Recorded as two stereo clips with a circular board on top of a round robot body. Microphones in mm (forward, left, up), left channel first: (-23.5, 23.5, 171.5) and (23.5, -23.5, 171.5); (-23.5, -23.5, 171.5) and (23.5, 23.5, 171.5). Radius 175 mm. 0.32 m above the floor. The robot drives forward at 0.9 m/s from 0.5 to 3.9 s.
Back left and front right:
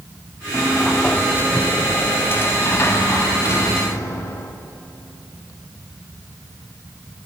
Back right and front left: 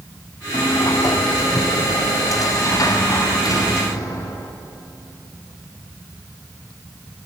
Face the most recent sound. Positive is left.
turn(degrees=-175)